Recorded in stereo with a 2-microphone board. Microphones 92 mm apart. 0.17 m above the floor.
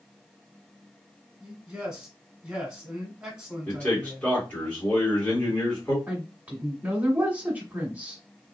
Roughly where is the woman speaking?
Centre.